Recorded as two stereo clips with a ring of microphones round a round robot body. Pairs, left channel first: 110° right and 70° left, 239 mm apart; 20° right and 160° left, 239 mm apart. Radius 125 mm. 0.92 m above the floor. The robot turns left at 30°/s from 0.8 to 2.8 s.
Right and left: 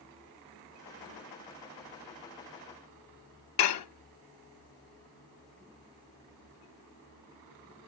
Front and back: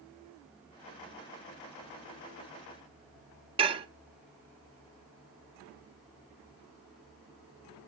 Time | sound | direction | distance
3.6 | dishes clattering | 135° right | 0.7 m